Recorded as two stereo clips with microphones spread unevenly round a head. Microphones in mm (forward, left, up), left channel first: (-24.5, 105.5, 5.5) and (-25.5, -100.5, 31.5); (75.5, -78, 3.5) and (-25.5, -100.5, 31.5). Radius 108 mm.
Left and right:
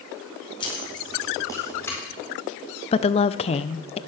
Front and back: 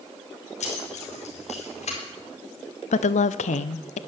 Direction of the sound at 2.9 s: 25° left.